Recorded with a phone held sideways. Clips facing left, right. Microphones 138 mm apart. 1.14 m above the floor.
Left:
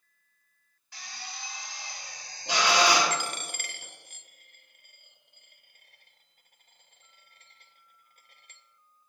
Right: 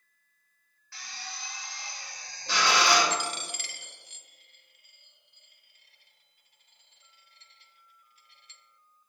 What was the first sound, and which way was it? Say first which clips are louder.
A drill: even; 20° left (ahead or behind).